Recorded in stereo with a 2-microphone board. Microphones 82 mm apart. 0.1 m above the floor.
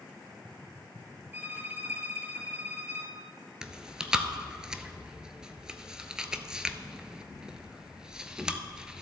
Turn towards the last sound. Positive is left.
turn(degrees=-10)  # may be behind; listen again after turning